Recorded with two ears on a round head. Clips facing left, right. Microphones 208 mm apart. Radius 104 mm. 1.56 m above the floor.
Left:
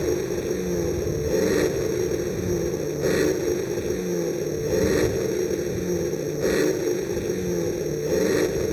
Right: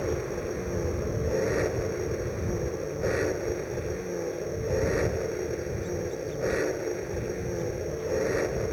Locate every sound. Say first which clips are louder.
0.0 s an engine running: left 6 dB; 50° left (ahead or behind)